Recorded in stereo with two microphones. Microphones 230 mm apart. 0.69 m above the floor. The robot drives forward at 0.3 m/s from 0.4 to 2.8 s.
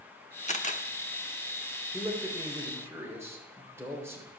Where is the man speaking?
10° right (ahead or behind), 2.5 m.